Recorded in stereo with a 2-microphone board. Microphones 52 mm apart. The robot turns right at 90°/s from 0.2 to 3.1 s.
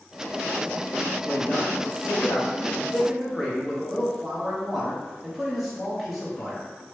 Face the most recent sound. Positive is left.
turn(degrees=180)